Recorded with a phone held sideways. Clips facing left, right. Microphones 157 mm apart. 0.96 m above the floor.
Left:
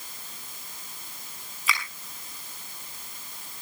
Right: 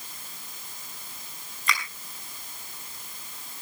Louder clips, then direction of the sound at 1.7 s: Right 1 dB; 5° left (ahead or behind).